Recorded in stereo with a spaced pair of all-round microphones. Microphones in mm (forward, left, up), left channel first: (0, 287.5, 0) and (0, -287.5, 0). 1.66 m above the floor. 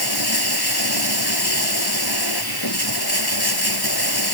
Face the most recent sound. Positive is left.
turn(degrees=40)  # may be behind; listen again after turning